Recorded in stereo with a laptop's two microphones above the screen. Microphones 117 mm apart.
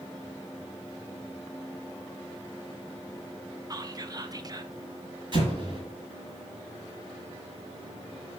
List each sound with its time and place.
3.7 s whispering: 35° right (ahead or behind), 0.5 m
5.3 s an explosion: 40° right (ahead or behind), 1.5 m